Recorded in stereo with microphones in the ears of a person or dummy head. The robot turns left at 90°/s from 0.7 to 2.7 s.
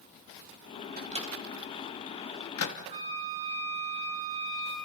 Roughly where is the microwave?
Right.